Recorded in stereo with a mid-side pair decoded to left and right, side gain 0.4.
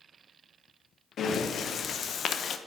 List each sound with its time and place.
1.2 s breathing: 60° left, 0.8 m